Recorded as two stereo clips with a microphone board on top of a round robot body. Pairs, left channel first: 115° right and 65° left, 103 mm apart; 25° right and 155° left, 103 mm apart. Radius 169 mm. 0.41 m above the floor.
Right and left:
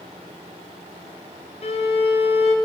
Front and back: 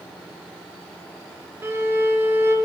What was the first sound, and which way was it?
A violin, 135° right.